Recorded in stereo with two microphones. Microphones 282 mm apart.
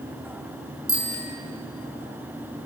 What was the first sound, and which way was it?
A bicycle bell, 80° left.